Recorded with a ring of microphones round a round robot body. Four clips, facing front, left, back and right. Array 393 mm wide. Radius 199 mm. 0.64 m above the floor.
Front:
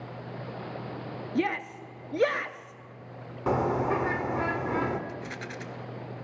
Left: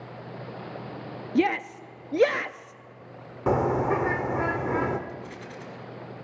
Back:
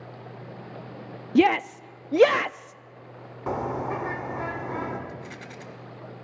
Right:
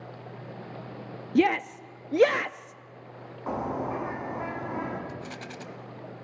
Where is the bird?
80° left, 2.0 m.